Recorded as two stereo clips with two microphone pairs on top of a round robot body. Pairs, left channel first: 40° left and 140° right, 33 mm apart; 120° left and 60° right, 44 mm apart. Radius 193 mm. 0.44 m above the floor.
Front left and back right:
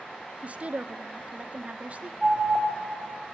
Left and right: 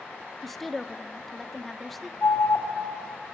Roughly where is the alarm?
Behind left.